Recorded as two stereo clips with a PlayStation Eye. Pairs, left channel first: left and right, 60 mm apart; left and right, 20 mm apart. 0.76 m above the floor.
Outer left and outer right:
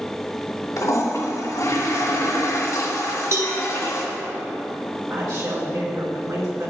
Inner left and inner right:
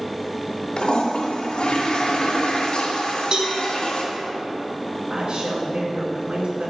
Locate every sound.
0.8 s a toilet flushing: 65° left (ahead or behind), 2 m
3.3 s a cowbell: 50° right (ahead or behind), 2 m
5.1 s a woman speaking: 75° right (ahead or behind), 4 m